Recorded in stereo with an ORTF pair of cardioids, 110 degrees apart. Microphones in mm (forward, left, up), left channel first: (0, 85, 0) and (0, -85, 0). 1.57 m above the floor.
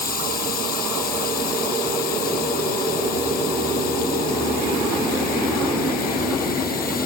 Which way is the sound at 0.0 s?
65° left.